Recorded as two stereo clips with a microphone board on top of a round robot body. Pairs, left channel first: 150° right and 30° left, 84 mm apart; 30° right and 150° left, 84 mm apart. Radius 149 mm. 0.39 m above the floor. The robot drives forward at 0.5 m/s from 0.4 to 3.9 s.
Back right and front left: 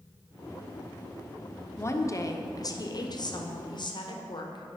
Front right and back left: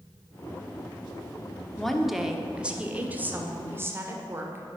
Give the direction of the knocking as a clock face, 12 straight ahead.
No knocking in this recording.